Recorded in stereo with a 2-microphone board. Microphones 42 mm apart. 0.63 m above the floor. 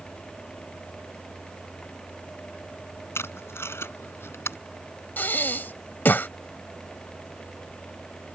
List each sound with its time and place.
3.1 s tape being pulled: 75° left (ahead or behind)
5.2 s breathing: 50° left (ahead or behind)